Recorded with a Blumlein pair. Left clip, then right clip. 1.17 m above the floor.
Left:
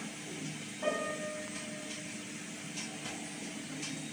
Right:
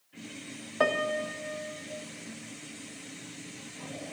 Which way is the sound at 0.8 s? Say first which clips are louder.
Right 8 dB; 45° right.